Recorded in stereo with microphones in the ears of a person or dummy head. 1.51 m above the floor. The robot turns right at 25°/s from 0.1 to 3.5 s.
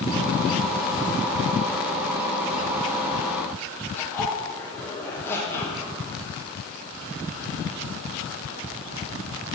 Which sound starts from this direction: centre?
A zipper, at 4.0 s.